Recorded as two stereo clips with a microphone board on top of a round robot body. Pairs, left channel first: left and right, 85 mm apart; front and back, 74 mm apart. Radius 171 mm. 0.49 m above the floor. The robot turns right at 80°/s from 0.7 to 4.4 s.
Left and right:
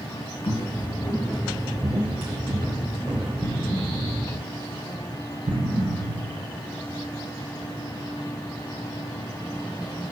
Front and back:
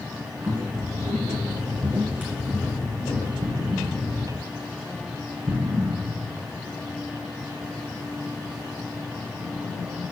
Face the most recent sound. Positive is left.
turn(degrees=-125)